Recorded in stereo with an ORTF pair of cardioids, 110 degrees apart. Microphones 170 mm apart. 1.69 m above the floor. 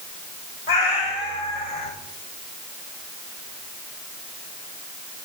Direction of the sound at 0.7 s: 70° left.